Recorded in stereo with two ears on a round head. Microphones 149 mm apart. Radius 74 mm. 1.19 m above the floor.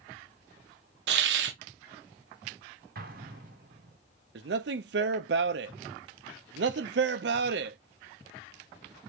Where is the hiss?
75° right (ahead or behind), 0.6 m.